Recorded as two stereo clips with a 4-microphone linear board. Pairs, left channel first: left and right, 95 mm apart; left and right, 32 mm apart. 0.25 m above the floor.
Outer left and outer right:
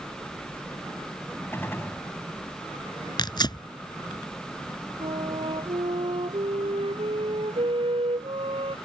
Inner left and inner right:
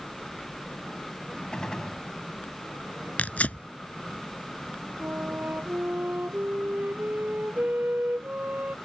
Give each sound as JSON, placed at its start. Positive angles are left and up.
{"t": 1.5, "sound": "a gunshot", "side_deg": 25}
{"t": 3.2, "sound": "tearing paper", "side_deg": 50}
{"t": 5.0, "sound": "a flute", "side_deg": -75}